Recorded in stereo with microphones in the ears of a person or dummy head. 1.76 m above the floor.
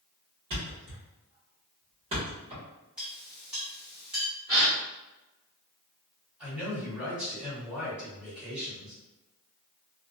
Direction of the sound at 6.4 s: 10° right (ahead or behind).